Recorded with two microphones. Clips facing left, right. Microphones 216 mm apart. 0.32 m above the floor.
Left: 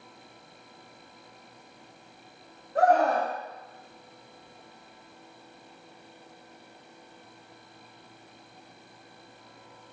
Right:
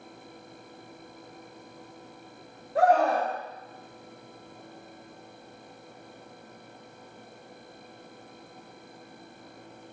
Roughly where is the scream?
Centre.